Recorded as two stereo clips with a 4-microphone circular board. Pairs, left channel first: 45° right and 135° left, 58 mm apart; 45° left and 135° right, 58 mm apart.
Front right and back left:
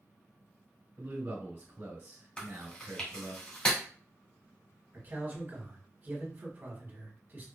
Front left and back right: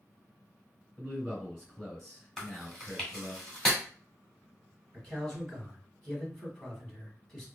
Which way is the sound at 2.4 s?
25° right.